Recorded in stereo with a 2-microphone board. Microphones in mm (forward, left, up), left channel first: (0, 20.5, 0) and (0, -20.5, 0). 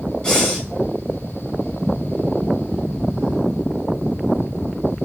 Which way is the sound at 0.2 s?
10° left (ahead or behind).